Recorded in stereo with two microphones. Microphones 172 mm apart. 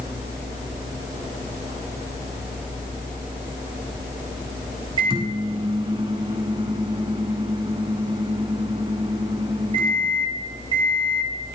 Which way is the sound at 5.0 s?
30° right (ahead or behind).